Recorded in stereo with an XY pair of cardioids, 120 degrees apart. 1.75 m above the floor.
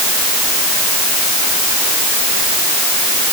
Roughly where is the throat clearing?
I don't hear throat clearing.